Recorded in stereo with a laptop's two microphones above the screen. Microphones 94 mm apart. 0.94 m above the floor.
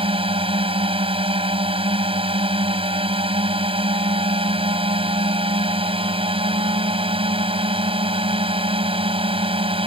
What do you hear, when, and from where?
0.0 s a drone: 75° right (ahead or behind)